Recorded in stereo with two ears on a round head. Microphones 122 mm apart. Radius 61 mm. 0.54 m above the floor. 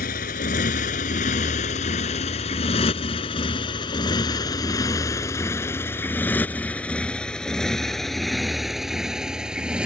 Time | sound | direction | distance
0.0 | a motorcycle | 70° left (ahead or behind) | ?